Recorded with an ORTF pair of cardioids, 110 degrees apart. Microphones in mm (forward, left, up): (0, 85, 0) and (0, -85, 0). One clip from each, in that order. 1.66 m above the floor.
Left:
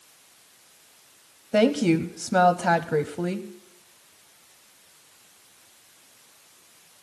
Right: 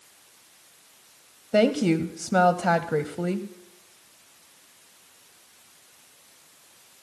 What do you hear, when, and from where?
1.5 s a woman speaking: straight ahead, 0.5 m